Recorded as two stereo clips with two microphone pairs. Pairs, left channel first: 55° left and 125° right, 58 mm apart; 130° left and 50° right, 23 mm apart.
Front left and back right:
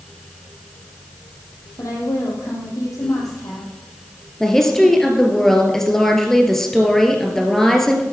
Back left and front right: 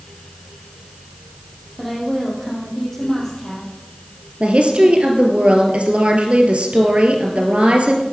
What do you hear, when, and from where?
1.8 s a woman speaking: 50° left, 5.5 m
4.4 s a woman speaking: 30° right, 2.5 m